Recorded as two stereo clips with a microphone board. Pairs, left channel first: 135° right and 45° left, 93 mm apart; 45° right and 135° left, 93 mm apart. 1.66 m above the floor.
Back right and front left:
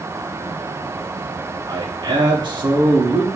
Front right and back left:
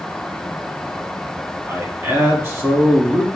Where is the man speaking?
75° left, 1.3 m.